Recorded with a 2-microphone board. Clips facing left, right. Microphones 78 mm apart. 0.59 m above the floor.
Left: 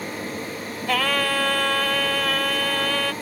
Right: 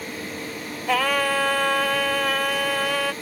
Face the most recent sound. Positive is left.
turn(degrees=-10)  # may be behind; listen again after turning